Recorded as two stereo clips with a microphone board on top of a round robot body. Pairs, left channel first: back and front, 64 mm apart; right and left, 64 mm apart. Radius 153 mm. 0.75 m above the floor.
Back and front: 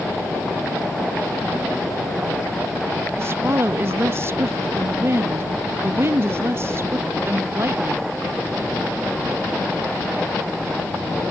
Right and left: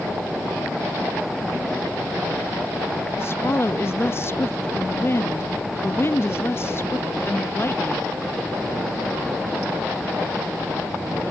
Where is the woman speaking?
45° right.